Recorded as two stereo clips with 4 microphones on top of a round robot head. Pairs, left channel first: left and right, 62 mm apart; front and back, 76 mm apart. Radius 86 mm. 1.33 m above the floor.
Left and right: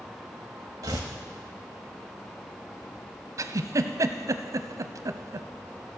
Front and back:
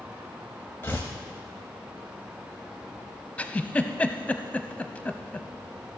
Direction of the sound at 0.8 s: 70° right.